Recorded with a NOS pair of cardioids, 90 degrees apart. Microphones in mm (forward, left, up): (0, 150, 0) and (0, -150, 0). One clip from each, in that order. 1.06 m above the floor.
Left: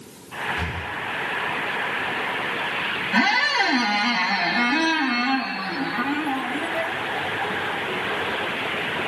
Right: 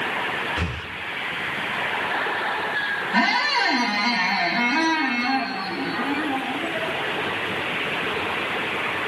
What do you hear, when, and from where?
0.6 s breathing: 40° right, 0.6 m
3.1 s a squeak: 20° left, 1.3 m